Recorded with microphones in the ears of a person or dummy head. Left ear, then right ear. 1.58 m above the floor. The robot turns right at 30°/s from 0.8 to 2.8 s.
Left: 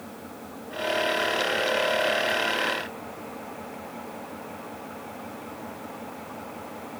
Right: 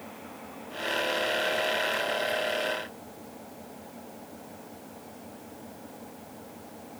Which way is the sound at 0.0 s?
15° right.